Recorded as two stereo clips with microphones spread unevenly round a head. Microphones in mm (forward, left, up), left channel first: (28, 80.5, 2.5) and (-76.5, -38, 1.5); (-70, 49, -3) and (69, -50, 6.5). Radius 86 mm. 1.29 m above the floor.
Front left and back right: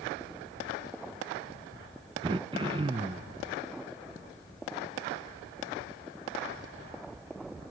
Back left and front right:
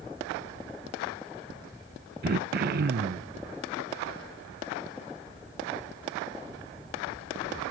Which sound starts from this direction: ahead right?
Throat clearing, at 2.2 s.